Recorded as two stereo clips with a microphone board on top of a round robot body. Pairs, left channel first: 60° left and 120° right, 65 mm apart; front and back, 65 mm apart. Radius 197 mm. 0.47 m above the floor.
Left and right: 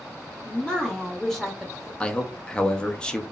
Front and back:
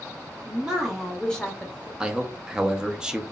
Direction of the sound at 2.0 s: 120° left.